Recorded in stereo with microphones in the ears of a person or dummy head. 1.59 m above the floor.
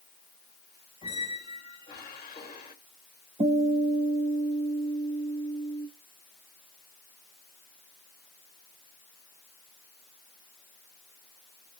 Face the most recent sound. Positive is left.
turn(degrees=-20)  # may be behind; listen again after turning